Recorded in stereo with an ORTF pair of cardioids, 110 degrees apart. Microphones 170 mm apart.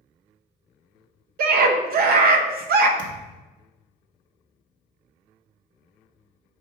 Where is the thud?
55° right, 1.0 m.